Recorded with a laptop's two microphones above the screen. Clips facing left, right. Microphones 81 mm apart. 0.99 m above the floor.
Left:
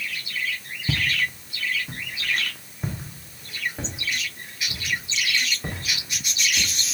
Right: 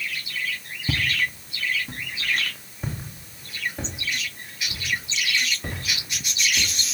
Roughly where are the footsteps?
Centre.